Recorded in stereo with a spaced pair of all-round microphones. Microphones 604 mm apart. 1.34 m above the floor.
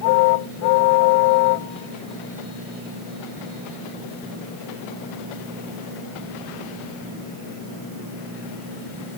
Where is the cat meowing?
No cat meowing in this recording.